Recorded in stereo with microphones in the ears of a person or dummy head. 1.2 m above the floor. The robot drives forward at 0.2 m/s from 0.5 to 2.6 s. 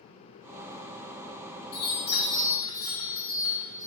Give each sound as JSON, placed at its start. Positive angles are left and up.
{"t": 1.7, "sound": "a chime", "side_deg": 25, "distance_m": 0.7}